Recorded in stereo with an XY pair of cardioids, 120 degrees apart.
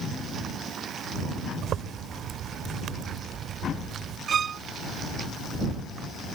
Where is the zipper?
55° right.